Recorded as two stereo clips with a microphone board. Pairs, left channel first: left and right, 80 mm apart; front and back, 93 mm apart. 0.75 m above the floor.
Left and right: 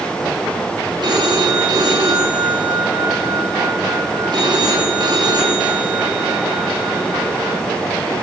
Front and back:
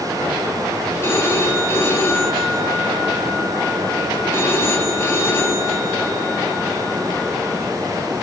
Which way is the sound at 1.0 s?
65° right.